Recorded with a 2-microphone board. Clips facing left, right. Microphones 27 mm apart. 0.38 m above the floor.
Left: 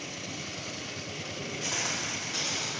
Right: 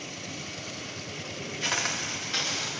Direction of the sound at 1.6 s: 50° right (ahead or behind).